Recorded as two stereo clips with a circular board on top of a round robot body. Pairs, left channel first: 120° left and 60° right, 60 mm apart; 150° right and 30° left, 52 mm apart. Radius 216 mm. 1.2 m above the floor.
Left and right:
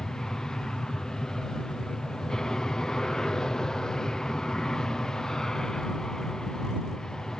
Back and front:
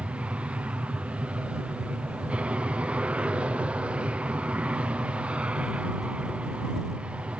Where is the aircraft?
55° left.